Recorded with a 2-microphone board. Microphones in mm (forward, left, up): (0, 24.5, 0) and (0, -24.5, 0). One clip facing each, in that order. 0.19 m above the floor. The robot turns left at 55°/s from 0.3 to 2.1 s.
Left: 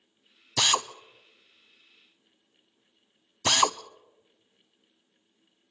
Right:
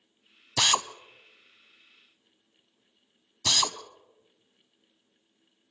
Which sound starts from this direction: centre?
A drill, at 0.6 s.